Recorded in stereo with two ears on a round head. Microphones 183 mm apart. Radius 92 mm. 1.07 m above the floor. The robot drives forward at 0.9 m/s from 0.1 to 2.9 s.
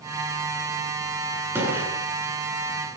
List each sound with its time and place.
1.6 s a gunshot: 10° right (ahead or behind), 10 m